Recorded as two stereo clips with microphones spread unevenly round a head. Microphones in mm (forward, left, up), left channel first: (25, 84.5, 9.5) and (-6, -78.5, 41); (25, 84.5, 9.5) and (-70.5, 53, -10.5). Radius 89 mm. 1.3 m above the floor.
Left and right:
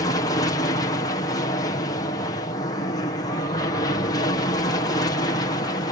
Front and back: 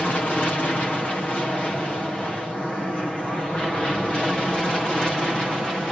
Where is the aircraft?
100° left; by 5.9 s 110° left.